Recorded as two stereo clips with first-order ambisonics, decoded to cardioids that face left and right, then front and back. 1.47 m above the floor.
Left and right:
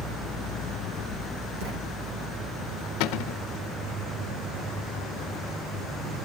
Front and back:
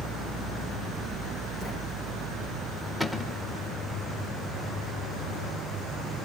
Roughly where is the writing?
Right.